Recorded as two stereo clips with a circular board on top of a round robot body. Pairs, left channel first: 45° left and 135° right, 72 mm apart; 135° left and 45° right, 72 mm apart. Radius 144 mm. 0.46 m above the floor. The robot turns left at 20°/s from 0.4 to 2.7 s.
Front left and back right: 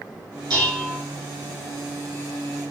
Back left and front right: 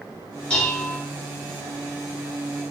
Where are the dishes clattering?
150° right, 3.5 m; by 1.0 s 160° right, 3.5 m.